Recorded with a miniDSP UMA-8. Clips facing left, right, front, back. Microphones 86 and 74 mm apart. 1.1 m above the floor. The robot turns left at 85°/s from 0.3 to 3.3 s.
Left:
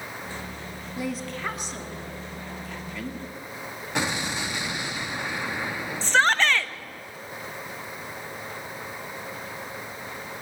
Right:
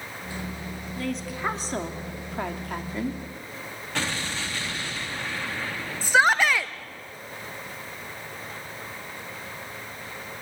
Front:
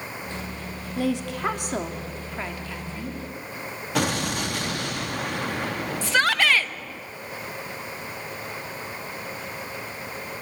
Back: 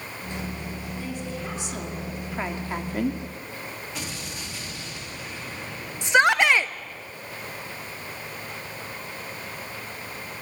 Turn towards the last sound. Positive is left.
turn(degrees=-155)